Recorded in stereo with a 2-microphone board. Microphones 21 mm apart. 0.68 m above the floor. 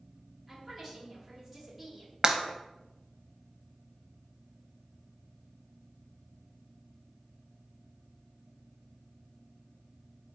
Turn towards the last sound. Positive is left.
turn(degrees=-35)  # may be behind; listen again after turning